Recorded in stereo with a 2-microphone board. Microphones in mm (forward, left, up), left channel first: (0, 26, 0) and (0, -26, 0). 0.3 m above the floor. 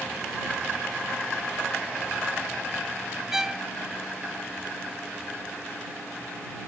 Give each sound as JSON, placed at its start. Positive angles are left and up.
{"t": 3.3, "sound": "a violin", "side_deg": -10}